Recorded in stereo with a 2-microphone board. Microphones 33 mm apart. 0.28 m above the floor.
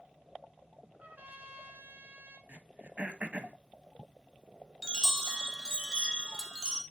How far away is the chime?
About 0.9 m.